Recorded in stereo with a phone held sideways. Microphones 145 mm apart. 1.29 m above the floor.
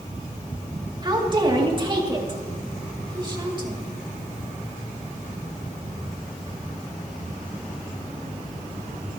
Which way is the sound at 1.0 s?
35° right (ahead or behind).